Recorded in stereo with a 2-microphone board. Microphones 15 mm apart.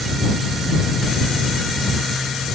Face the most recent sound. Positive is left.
No sound to turn to.